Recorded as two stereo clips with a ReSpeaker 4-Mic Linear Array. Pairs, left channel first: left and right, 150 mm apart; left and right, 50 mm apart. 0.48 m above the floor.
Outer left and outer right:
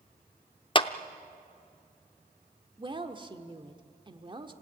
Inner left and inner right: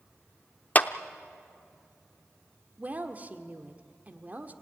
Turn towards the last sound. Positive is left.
turn(degrees=-35)  # may be behind; listen again after turning